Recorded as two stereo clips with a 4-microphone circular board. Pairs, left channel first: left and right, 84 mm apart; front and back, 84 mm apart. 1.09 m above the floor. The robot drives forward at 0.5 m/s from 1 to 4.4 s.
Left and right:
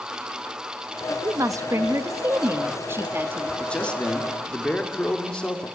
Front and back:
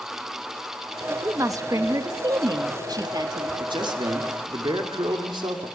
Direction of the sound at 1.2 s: 135° right.